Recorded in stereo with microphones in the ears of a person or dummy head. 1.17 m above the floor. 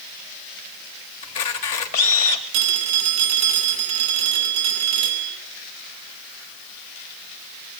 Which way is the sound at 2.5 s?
75° right (ahead or behind).